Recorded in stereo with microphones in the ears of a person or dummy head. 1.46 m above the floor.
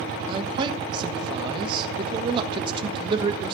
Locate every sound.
0.3 s a man speaking: 30° right (ahead or behind), 1.3 m